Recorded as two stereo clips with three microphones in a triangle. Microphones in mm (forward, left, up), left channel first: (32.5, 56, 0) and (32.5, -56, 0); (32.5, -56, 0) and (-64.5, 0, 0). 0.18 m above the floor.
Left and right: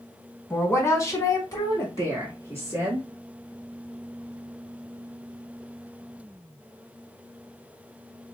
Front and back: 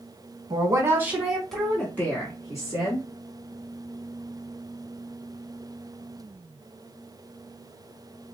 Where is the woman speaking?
140° left, 1.2 m; by 3.0 s 20° left, 2 m.